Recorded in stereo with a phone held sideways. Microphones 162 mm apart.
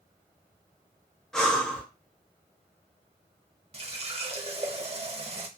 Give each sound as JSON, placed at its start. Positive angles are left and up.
{"t": 1.3, "sound": "breathing", "side_deg": 5, "distance_m": 0.8}
{"t": 3.7, "sound": "a running tap", "side_deg": -40, "distance_m": 0.5}